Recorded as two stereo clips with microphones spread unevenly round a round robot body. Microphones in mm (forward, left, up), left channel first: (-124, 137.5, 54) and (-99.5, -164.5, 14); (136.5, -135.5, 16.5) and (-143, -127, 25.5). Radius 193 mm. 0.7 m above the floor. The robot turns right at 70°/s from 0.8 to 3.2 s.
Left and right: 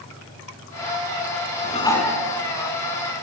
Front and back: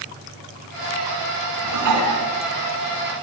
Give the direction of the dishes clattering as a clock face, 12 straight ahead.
7 o'clock.